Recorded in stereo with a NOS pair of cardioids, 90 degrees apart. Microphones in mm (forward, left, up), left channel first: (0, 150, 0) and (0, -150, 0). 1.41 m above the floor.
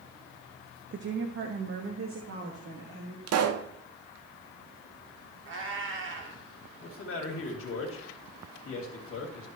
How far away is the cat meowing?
About 2 m.